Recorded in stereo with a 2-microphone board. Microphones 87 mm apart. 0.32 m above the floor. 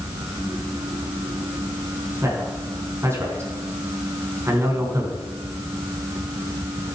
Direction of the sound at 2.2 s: 30° right (ahead or behind).